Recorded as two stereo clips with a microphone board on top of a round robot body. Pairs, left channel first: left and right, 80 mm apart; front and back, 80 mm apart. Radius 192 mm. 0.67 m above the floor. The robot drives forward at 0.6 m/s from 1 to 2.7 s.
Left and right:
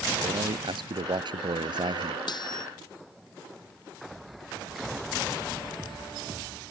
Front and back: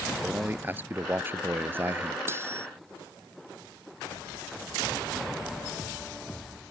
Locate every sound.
0.2 s a man speaking: 115° right
2.3 s cutlery clinking: 120° left